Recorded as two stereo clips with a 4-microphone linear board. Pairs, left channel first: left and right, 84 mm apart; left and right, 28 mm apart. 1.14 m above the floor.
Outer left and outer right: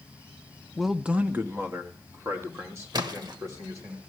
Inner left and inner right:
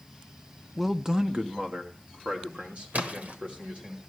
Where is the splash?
60° right (ahead or behind), 1.3 m.